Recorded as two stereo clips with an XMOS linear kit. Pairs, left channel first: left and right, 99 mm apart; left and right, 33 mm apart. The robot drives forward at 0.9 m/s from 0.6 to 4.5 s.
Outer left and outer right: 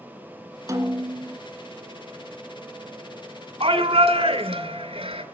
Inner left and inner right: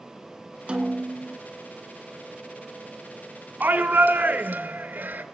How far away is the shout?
About 2.5 m.